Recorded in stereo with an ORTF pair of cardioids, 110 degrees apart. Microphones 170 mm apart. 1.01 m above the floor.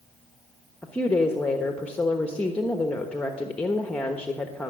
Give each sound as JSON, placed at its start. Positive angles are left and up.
{"t": 0.8, "sound": "a woman speaking", "azimuth_deg": 10, "distance_m": 1.0}